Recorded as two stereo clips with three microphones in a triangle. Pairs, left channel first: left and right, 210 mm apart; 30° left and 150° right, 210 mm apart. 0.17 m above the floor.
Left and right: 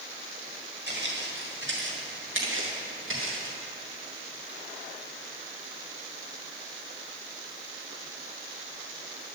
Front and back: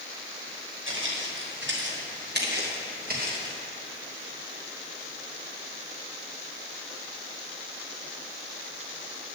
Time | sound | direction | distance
0.9 | footsteps | 125° right | 4 m